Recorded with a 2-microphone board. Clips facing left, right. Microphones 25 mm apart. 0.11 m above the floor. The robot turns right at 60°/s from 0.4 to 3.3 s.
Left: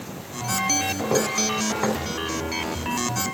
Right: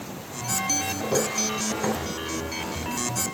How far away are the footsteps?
About 4.5 m.